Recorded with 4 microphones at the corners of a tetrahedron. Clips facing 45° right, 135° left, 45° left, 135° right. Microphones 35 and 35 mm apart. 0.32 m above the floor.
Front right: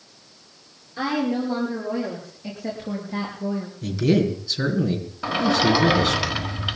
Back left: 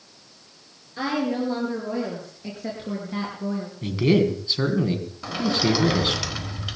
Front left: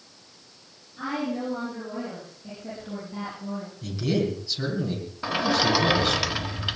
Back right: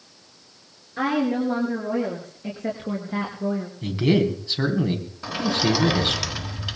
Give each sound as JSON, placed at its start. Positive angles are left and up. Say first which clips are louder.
{"t": 1.0, "sound": "a woman speaking", "louder": "front right 1 dB, back right 7 dB", "azimuth_deg": -140, "distance_m": 6.0}
{"t": 3.8, "sound": "a man speaking", "louder": "back left 1 dB, back right 5 dB", "azimuth_deg": -175, "distance_m": 3.5}
{"t": 5.2, "sound": "a sliding door", "louder": "front right 4 dB, even", "azimuth_deg": -15, "distance_m": 1.3}